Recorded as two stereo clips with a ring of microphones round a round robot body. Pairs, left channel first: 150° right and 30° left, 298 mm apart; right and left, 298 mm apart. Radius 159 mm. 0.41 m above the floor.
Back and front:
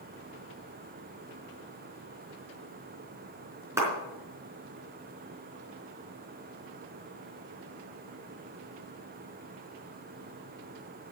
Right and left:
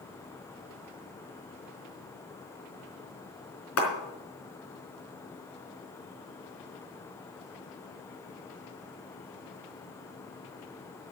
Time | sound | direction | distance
3.8 | a clap | 50° right | 4 m